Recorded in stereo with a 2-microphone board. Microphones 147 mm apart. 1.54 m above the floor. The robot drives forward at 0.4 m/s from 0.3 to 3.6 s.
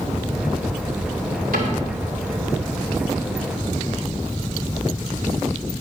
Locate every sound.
1.5 s a cupboard door: 75° right (ahead or behind), 2.5 m